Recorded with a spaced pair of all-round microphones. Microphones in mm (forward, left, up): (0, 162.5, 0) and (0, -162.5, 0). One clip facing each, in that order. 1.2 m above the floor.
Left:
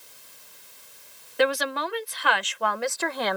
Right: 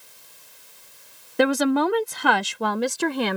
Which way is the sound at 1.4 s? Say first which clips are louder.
Right 6 dB; 55° right (ahead or behind).